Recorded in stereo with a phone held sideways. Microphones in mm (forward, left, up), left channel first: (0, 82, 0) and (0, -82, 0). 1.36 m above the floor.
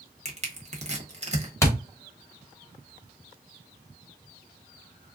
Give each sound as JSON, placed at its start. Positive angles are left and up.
{"t": 0.2, "sound": "crushing", "side_deg": -40, "distance_m": 1.0}
{"t": 1.6, "sound": "a thud", "side_deg": 15, "distance_m": 0.9}